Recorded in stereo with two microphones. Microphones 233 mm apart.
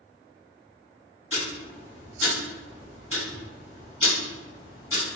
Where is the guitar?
I don't hear a guitar.